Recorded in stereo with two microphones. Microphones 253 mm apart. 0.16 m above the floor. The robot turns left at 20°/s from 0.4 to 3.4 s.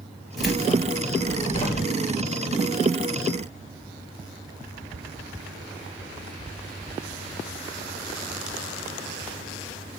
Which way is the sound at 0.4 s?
Centre (ahead or behind).